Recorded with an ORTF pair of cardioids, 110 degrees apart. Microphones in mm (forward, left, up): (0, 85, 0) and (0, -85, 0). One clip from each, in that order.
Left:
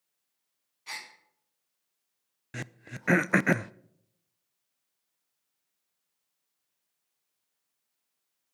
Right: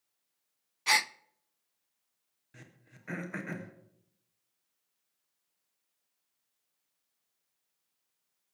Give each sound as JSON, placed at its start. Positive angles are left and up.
{"t": 0.9, "sound": "a gasp", "azimuth_deg": -65, "distance_m": 0.6}
{"t": 2.5, "sound": "throat clearing", "azimuth_deg": 70, "distance_m": 0.5}